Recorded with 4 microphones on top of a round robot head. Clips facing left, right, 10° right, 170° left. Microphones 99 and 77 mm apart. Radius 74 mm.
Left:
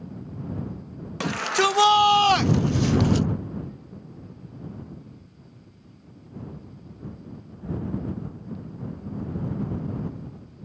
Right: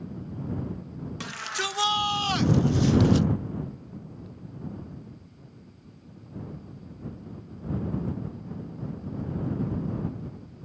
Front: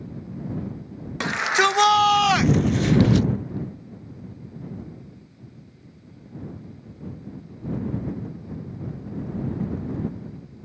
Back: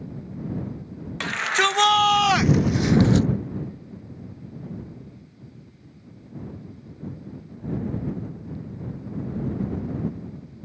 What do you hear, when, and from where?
1.2 s a shout: 60° left; by 3.3 s 120° left